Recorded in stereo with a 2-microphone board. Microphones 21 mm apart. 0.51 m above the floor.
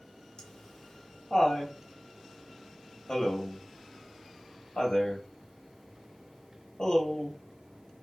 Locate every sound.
0.4 s laughter: 35° left (ahead or behind), 0.7 m